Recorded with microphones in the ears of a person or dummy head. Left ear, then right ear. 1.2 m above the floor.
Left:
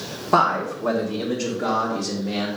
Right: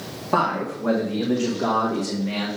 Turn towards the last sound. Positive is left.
turn(degrees=-35)  # may be behind; listen again after turning